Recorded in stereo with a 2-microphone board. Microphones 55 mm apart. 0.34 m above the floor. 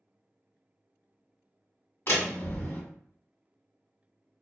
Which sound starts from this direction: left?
A door slam, at 2.1 s.